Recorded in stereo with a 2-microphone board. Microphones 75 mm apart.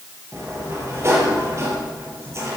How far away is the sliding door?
About 4 m.